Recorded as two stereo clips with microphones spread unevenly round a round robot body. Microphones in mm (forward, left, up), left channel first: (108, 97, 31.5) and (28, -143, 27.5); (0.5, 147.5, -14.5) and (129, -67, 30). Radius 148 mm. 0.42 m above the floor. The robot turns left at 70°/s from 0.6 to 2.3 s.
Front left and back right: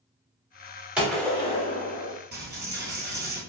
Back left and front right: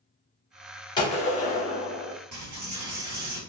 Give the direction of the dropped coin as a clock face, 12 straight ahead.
2 o'clock.